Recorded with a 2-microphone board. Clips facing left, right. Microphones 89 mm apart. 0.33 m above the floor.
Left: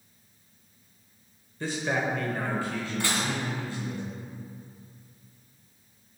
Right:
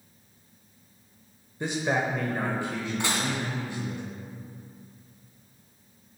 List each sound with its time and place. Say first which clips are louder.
1.6 s a man speaking: right 2 dB; 20° right (ahead or behind), 0.8 m; by 4.0 s 15° right (ahead or behind), 1.8 m
3.0 s dishes clattering: even; 20° right (ahead or behind), 2.0 m